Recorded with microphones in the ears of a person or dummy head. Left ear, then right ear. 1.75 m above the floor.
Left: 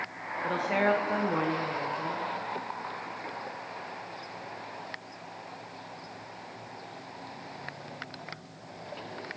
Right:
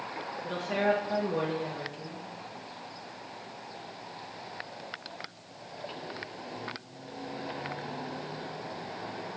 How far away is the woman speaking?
About 0.9 m.